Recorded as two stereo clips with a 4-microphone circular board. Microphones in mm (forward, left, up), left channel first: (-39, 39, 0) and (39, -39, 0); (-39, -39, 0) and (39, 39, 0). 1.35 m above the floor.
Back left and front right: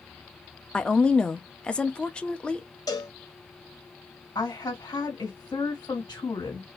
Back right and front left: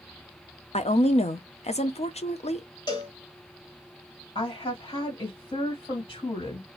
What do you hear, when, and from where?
0.7 s a woman speaking: 145° right, 0.7 m
2.9 s a cowbell: 175° right, 2 m
4.3 s a woman speaking: 165° right, 2.5 m